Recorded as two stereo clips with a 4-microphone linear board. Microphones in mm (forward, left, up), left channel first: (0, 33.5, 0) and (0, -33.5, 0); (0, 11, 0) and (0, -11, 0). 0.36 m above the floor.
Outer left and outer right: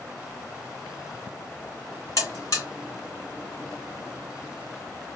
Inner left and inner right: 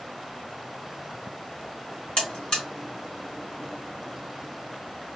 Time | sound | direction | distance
2.2 | a buzzer | 45° left (ahead or behind) | 2 m